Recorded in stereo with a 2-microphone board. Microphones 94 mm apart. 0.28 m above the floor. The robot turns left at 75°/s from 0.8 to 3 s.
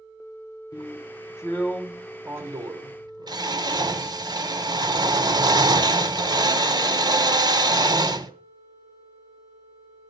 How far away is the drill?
About 1.3 m.